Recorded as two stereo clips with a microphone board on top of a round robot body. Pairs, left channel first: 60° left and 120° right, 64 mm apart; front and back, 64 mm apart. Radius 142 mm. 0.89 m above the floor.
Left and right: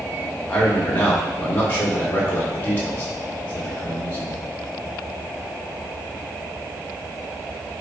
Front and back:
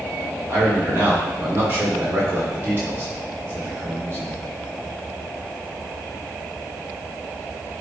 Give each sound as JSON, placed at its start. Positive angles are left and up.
{"t": 0.5, "sound": "a man speaking", "azimuth_deg": 120, "distance_m": 3.5}